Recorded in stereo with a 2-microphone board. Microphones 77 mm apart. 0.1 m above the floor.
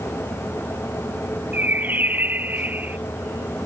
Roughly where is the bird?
Right.